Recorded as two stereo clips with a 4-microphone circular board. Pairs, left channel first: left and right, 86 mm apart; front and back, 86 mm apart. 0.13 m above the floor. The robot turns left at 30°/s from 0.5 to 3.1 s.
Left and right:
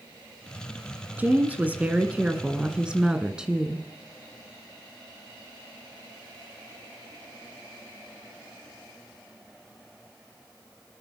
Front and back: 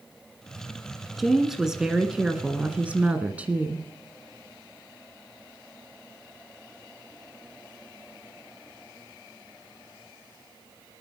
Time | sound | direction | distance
1.2 | a woman speaking | 95° right | 1.4 m